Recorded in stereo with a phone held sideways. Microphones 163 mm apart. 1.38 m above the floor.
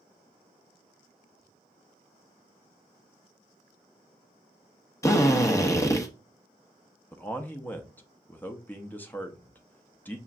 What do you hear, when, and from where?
5.0 s a drill: 20° left (ahead or behind), 0.7 m
7.1 s a man speaking: 10° left (ahead or behind), 0.6 m